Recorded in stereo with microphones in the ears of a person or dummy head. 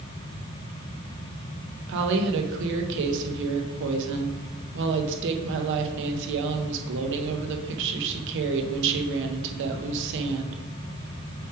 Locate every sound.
1.9 s a woman speaking: 70° right (ahead or behind), 0.9 m